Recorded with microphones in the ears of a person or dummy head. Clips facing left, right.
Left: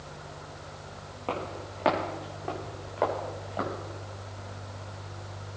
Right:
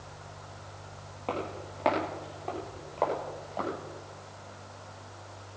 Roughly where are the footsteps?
Centre.